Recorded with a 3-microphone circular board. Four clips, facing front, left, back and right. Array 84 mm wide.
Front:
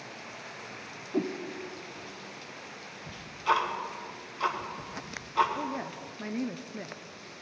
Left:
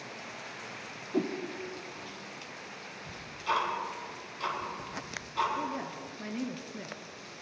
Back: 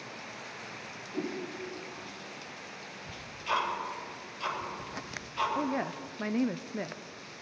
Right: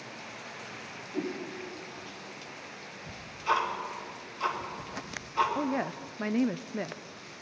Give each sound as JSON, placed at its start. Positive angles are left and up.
{"t": 1.1, "sound": "a whoosh", "azimuth_deg": 45, "distance_m": 1.0}
{"t": 3.1, "sound": "ticking", "azimuth_deg": -10, "distance_m": 2.5}
{"t": 5.5, "sound": "a woman speaking", "azimuth_deg": -120, "distance_m": 0.5}